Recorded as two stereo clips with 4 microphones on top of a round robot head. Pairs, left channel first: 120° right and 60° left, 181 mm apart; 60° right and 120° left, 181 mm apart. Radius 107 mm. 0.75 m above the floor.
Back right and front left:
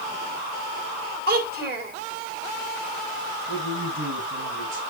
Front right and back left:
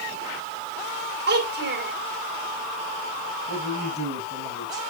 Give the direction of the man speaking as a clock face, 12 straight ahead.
10 o'clock.